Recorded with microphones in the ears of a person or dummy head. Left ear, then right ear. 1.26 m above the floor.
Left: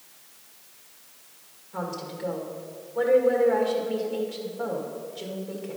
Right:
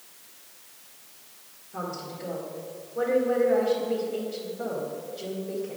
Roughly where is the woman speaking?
Left.